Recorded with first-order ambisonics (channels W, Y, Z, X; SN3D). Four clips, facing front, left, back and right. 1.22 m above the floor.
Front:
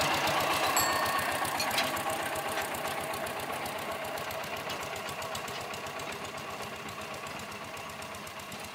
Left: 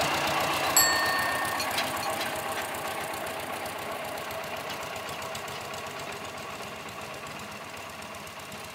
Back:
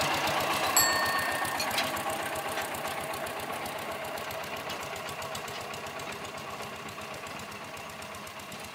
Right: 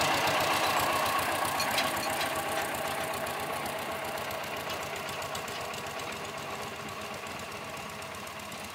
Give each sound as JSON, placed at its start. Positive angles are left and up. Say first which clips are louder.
{"t": 0.8, "sound": "a bicycle bell", "louder": "left 3 dB, back 2 dB", "azimuth_deg": 110}